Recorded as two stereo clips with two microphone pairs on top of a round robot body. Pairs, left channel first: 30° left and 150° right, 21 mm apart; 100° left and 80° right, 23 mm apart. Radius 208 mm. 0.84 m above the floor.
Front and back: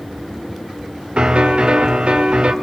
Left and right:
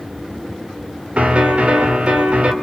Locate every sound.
1.2 s a piano: 115° right, 3.5 m